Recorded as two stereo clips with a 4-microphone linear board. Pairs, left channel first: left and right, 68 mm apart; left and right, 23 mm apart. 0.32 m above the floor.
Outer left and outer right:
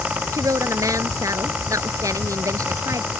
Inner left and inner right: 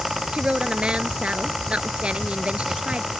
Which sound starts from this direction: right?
A woman speaking, at 0.3 s.